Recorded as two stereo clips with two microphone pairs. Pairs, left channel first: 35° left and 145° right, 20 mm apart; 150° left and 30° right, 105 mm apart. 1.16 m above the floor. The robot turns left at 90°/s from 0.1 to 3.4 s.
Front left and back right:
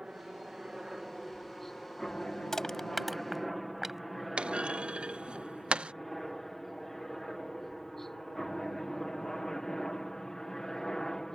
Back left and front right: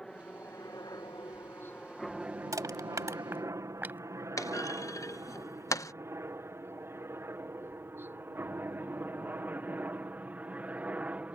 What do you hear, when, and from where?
0.0 s a helicopter: 125° right; by 11.4 s 35° left
2.5 s crushing: 5° right; by 4.0 s 85° right
4.4 s a clunk: 150° right